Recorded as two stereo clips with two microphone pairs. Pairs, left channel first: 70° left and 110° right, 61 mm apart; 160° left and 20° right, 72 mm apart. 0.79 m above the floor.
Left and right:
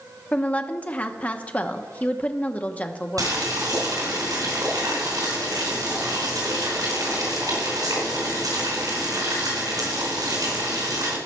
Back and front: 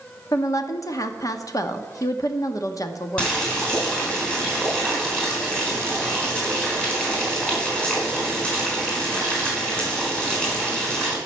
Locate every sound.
0.3 s a woman speaking: 135° left, 1.0 m
3.2 s boiling: 125° right, 4.5 m